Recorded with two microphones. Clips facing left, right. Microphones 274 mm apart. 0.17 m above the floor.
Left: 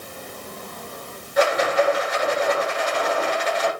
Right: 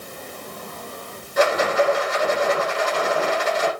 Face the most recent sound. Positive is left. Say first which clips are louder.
# even
turn(degrees=-45)  # may be behind; listen again after turning